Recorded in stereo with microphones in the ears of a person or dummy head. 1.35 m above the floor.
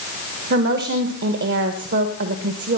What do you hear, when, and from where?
0.5 s a woman speaking: 50° right (ahead or behind), 1.2 m